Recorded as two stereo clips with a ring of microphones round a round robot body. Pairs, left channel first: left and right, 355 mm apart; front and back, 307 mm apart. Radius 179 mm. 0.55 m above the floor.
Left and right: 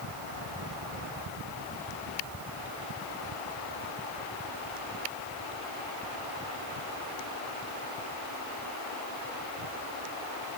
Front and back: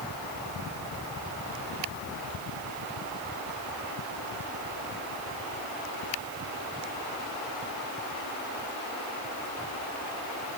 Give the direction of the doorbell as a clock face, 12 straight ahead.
No doorbell in this recording.